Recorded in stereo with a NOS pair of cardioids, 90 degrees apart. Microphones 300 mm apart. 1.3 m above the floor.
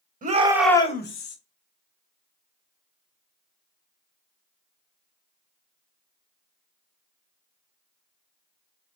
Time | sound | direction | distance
0.2 | a shout | 25° right | 1.2 m